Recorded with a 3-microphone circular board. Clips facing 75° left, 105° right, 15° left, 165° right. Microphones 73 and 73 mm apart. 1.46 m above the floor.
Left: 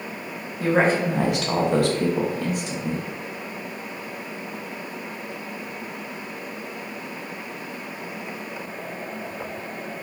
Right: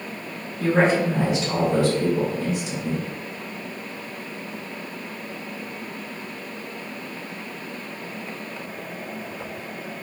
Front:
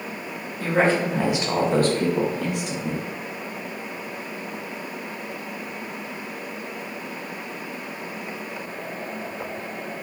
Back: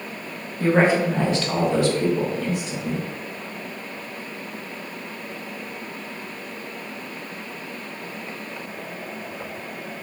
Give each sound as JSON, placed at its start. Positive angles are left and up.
{"t": 0.6, "sound": "a woman speaking", "azimuth_deg": 130, "distance_m": 0.7}